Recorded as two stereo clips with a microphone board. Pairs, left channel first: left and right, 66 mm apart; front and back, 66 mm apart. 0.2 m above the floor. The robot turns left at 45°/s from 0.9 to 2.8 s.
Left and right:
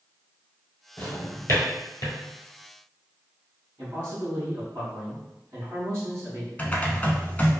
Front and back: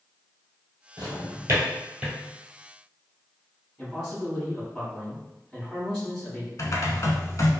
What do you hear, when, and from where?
1.0 s a drawer: 160° left, 1.2 m; by 2.2 s 105° left, 1.2 m
3.8 s a man speaking: 70° right, 1.6 m
6.6 s typing on a keyboard: 25° left, 0.6 m